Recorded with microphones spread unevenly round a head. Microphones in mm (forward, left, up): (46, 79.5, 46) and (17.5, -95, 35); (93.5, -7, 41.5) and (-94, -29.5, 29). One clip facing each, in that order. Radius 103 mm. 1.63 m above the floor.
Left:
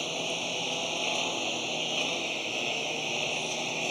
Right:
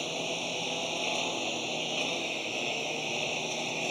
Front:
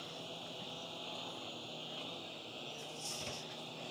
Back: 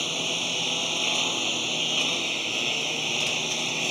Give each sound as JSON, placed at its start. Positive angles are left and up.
{"t": 0.0, "sound": "a lawn mower", "azimuth_deg": 170}